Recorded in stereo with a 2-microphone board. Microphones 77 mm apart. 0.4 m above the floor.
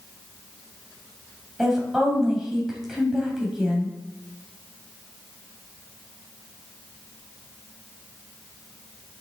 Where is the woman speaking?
5° right (ahead or behind), 3 m.